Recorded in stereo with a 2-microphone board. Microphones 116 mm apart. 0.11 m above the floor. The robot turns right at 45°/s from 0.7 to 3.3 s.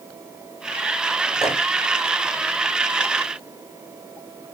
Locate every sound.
1.4 s a microwave: 5° right (ahead or behind), 1.9 m; by 1.6 s 10° right (ahead or behind), 1.9 m